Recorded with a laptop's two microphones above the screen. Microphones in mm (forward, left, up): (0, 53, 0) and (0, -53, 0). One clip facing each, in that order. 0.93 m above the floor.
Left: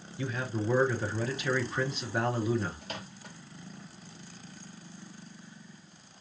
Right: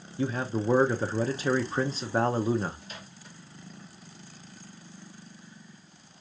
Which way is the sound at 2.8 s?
65° left (ahead or behind).